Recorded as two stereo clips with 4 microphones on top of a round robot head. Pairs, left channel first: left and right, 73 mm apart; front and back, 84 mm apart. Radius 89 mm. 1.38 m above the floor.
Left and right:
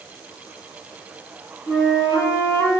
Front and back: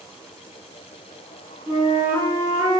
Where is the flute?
145° left, 1.0 m.